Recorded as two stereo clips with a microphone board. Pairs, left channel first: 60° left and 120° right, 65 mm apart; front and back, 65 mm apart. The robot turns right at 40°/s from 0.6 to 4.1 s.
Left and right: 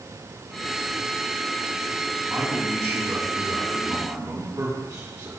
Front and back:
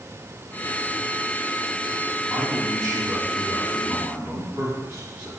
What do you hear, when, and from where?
2.3 s a man speaking: 155° left, 4 m; by 5.3 s 130° right, 4 m